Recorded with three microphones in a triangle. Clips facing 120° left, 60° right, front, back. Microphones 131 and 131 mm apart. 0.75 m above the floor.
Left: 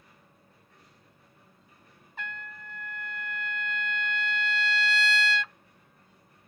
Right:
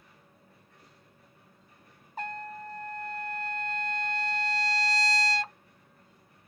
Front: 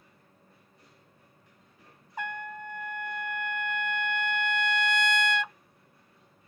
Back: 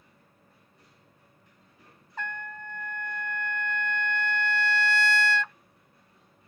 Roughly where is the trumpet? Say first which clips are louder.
Right 5 dB, front 1 dB; right.